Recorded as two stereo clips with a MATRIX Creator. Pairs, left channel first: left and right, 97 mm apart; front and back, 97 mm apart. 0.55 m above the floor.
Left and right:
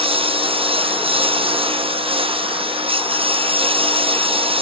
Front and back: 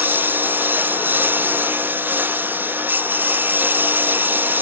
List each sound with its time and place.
0.0 s a lawn mower: 110° right